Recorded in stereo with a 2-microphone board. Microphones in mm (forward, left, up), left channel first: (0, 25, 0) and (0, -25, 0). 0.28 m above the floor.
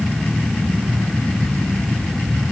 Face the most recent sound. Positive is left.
No sound to turn to.